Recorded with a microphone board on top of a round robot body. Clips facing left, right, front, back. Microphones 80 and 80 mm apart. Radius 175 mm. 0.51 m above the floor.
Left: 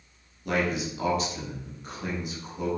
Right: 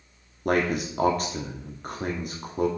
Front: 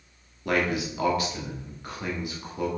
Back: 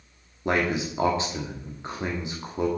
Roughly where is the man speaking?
Behind right.